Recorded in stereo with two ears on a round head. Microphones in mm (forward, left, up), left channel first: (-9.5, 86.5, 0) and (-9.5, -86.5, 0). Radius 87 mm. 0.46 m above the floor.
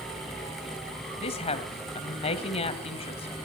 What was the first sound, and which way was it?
A woman speaking, 35° left (ahead or behind).